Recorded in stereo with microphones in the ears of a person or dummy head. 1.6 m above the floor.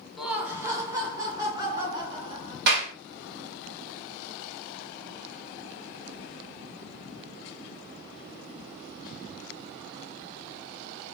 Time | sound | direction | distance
0.2 | laughter | 5° left (ahead or behind) | 0.5 m
2.7 | a clap | 55° right (ahead or behind) | 0.8 m